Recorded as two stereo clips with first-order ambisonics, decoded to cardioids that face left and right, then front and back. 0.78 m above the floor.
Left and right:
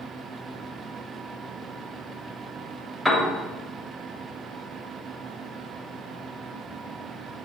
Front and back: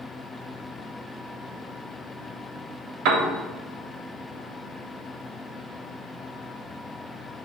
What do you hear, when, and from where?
3.0 s a piano: 175° right, 0.8 m